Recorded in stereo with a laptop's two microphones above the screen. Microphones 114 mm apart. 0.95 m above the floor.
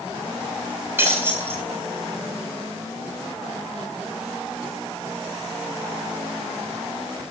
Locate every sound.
1.0 s breaking glass: 20° right (ahead or behind), 4 m